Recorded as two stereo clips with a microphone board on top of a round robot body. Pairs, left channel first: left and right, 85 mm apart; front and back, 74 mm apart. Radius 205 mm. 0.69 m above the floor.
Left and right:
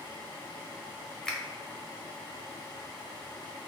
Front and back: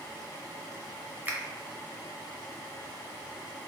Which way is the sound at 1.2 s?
165° left.